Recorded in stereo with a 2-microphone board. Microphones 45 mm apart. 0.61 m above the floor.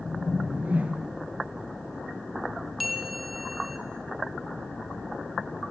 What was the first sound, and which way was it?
A whoosh, 35° right (ahead or behind).